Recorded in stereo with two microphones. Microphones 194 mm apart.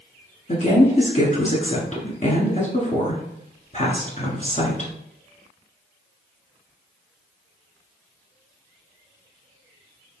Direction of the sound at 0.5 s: 35° left (ahead or behind).